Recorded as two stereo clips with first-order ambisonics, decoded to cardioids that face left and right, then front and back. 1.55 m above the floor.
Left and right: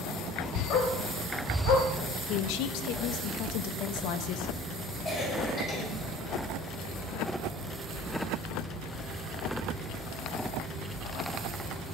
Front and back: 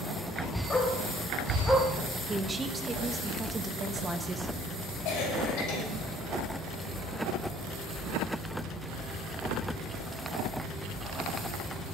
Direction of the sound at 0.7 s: 70° left.